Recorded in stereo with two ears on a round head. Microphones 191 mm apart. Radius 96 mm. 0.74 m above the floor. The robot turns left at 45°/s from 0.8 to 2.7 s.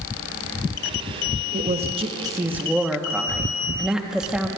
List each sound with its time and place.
1.5 s a woman speaking: 125° right, 1.1 m; by 4.5 s 175° right, 1.1 m